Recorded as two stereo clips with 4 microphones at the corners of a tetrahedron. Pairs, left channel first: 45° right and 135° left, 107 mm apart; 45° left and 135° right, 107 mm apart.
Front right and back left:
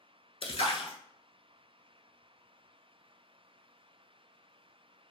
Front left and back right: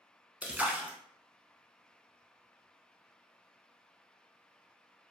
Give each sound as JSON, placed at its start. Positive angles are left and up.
{"t": 0.4, "sound": "a splash", "azimuth_deg": -60, "distance_m": 0.5}